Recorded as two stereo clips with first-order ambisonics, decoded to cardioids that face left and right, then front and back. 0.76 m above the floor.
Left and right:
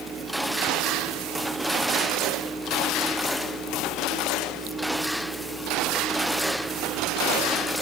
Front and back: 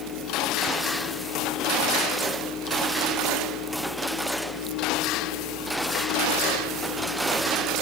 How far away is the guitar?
No guitar in this recording.